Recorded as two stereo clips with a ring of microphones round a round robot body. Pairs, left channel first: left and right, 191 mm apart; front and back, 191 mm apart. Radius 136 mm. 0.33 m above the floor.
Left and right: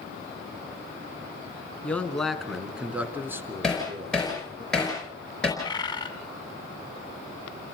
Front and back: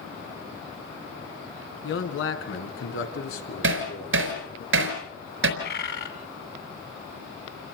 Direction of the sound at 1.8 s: 5° left.